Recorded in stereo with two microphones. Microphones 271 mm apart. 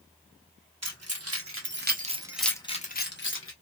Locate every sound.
0.8 s keys jangling: 70° right (ahead or behind), 1.3 m; by 3.5 s 50° left (ahead or behind), 1.0 m